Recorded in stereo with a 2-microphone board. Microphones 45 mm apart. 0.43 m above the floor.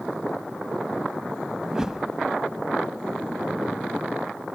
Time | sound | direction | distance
1.6 | a whoosh | 15° right (ahead or behind) | 0.5 m